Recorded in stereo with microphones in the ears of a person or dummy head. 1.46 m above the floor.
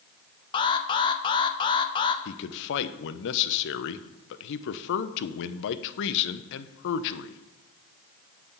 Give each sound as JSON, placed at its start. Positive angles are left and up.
{"t": 0.5, "sound": "an alarm", "side_deg": 30, "distance_m": 0.9}
{"t": 2.2, "sound": "a man speaking", "side_deg": 70, "distance_m": 0.8}